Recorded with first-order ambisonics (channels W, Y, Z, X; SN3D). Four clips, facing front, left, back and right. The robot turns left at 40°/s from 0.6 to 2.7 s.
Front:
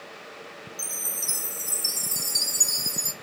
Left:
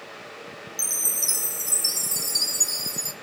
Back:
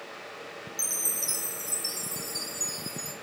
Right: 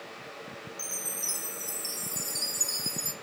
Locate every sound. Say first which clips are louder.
0.8 s a chime: left 9 dB, back 1 dB; 105° left, 0.8 m; by 3.1 s 30° left, 0.8 m